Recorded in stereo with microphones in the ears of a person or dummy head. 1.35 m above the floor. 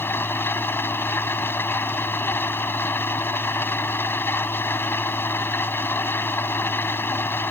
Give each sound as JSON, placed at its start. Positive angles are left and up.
{"t": 0.0, "sound": "an engine running", "side_deg": 15}